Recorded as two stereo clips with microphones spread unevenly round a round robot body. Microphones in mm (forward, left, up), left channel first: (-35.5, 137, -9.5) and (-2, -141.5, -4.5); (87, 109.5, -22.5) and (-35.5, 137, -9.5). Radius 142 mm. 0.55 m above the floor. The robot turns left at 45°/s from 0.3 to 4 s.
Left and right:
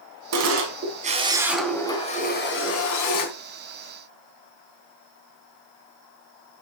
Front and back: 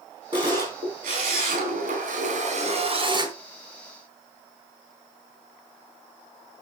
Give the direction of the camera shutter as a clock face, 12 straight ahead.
4 o'clock.